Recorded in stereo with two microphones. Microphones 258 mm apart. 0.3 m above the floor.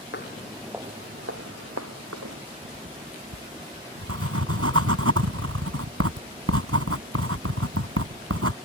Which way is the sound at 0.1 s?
45° left (ahead or behind).